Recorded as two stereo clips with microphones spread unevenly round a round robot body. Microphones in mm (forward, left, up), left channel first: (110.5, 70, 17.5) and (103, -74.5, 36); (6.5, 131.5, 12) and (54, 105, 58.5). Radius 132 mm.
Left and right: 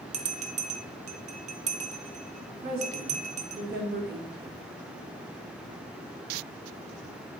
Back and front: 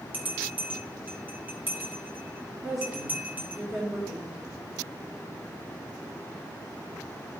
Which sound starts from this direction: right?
A woman speaking, at 2.6 s.